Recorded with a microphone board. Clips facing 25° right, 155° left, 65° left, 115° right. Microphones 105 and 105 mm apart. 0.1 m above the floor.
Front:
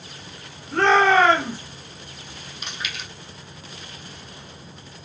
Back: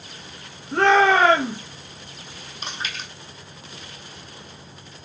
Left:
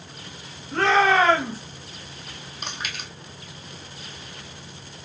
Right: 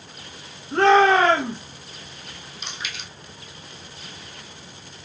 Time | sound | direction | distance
0.7 | a shout | 145° right | 1.3 m
2.6 | chewing | 105° left | 0.9 m